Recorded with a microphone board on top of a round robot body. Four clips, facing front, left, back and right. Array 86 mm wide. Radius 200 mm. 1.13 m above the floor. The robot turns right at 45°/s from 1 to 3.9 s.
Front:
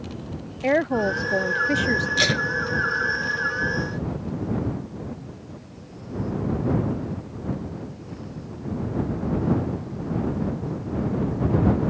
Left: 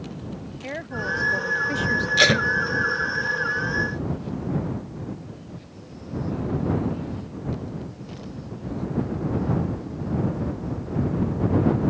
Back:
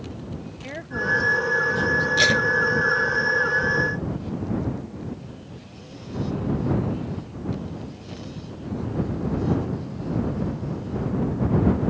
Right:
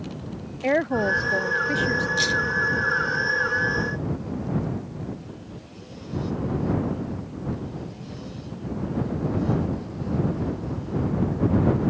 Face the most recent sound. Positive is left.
turn(degrees=165)